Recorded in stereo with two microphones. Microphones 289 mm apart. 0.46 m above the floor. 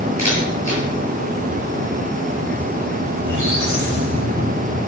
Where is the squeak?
70° left (ahead or behind), 7 m.